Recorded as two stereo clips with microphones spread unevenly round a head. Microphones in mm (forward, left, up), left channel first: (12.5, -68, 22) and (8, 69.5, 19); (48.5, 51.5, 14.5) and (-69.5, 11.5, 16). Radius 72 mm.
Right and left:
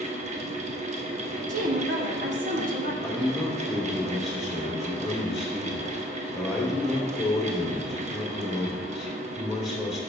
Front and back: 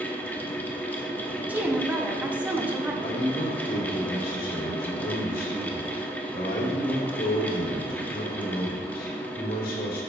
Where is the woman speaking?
120° left, 1.1 m.